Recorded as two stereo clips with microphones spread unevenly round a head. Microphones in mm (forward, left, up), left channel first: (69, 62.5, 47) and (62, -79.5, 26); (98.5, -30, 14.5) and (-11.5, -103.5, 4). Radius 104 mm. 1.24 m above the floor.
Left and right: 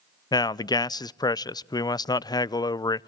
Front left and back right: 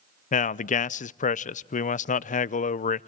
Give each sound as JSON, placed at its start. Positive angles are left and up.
{"t": 0.3, "sound": "a man speaking", "azimuth_deg": 20, "distance_m": 0.5}